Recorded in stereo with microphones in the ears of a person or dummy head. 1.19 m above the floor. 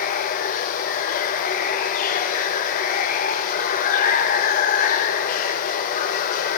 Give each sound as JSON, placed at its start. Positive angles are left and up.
{"t": 0.0, "sound": "running water", "side_deg": 45, "distance_m": 0.7}